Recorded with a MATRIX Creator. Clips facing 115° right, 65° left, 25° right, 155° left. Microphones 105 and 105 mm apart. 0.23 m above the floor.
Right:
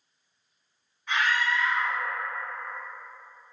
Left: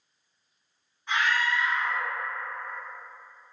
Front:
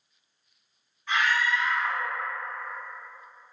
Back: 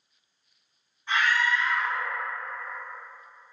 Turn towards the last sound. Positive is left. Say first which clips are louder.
# even, even
turn(degrees=115)